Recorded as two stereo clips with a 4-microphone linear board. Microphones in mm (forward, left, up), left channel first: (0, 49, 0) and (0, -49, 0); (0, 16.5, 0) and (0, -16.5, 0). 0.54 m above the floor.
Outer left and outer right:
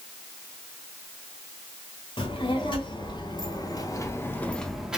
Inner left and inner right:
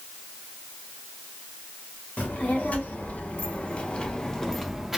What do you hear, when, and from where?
2.2 s a child speaking: 60° left (ahead or behind), 1.5 m; by 5.0 s 10° right (ahead or behind), 0.6 m